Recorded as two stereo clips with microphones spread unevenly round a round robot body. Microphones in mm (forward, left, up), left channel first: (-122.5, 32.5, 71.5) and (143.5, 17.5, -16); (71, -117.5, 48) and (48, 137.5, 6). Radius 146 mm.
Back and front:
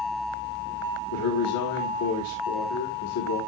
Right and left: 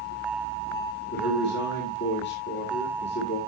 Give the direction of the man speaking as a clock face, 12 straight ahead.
5 o'clock.